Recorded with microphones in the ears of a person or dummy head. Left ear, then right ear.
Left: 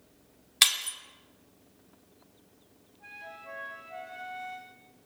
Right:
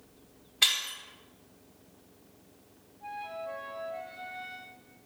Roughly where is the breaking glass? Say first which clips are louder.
Left 1 dB; left.